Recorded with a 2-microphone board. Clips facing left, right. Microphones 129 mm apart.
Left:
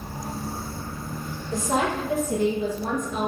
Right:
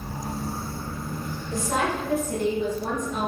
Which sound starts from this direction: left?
A woman speaking, at 1.5 s.